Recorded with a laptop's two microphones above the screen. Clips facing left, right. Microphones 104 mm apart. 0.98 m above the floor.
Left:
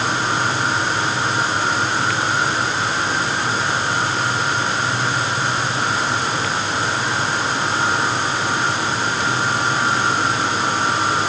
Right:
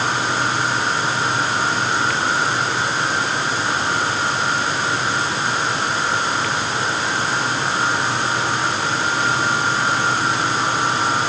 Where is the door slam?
No door slam in this recording.